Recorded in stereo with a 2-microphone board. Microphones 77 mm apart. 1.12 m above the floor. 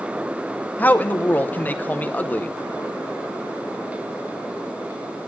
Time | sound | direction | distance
0.8 | a man speaking | 20° left (ahead or behind) | 0.7 m